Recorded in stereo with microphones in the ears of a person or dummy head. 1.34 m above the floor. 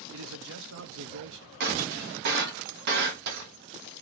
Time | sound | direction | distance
0.1 | a man speaking | 70° right (ahead or behind) | 0.6 m
1.6 | breaking glass | 60° right (ahead or behind) | 0.9 m